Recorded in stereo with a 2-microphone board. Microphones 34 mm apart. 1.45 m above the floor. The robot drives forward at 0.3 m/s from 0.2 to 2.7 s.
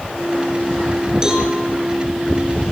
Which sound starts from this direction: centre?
A cowbell, at 1.2 s.